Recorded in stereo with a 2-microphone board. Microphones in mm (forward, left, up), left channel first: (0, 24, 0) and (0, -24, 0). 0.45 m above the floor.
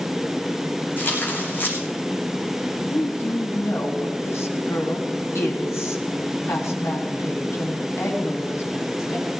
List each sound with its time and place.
1.0 s tearing paper: 45° left (ahead or behind), 5 m
2.9 s a woman speaking: 70° left (ahead or behind), 3.5 m